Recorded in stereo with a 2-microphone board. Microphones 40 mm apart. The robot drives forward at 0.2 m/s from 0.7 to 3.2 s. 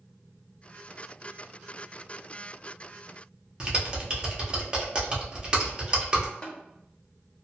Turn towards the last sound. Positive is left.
turn(degrees=25)  # may be behind; listen again after turning